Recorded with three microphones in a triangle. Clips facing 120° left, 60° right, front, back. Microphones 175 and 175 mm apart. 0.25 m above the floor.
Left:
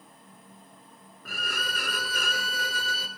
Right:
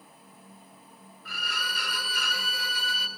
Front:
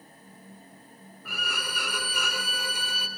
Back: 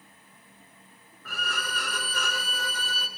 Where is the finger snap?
I don't hear a finger snap.